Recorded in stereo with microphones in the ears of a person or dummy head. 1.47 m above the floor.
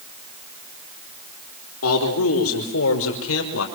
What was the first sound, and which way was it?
A man speaking, 85° left.